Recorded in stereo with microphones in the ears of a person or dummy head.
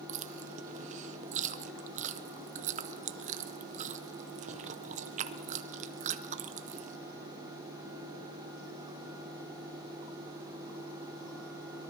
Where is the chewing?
35° right (ahead or behind), 0.6 m.